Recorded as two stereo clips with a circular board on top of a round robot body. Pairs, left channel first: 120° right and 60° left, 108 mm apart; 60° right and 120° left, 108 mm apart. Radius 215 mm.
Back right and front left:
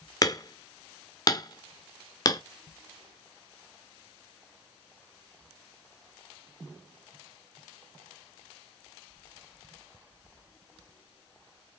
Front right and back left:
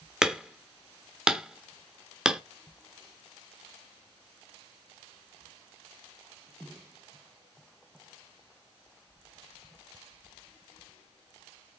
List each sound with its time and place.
0.2 s hammering: 160° right, 0.8 m